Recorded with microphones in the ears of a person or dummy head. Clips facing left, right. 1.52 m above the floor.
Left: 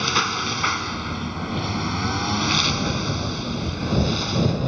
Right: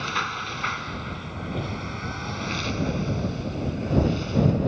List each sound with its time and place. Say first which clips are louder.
0.0 s a lawn mower: left 6 dB; 55° left (ahead or behind); by 4.7 s 75° left (ahead or behind)